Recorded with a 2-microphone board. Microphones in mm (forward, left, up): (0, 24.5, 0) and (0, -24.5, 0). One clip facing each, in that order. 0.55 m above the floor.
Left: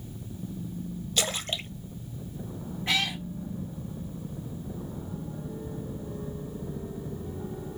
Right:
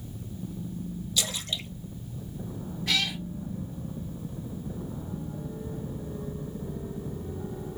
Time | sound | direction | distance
1.2 | a splash | 50° left (ahead or behind) | 0.6 m
2.9 | a cat meowing | 30° left (ahead or behind) | 1.1 m